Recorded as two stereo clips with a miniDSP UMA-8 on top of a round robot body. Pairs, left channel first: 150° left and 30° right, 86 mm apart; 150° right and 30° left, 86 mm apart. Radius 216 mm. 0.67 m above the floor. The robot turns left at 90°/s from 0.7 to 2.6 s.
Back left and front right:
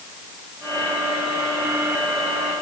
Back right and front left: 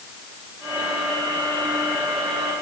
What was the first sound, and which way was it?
Only background noise.